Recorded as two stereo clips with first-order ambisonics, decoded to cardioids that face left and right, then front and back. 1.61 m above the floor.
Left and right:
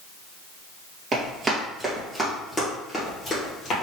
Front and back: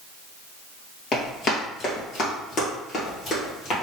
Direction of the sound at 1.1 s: 35° right.